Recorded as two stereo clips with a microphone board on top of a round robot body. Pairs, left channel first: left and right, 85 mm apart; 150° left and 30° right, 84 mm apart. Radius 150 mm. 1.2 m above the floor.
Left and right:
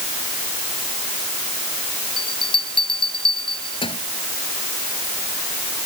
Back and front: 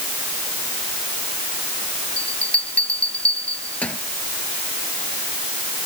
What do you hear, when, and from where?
2.2 s a bell: 75° left